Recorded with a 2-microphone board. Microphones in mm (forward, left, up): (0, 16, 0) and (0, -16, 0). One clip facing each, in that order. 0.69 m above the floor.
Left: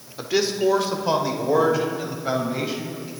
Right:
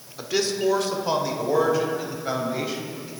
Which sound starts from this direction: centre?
A man speaking, at 0.2 s.